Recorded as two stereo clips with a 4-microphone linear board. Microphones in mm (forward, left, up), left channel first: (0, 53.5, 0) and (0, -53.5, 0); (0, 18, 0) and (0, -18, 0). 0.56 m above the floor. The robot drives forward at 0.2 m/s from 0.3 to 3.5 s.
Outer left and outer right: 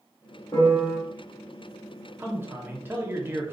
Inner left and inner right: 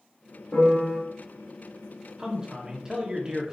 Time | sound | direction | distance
0.5 | a piano | 35° left (ahead or behind) | 1.6 m
2.2 | a man speaking | 20° right (ahead or behind) | 0.7 m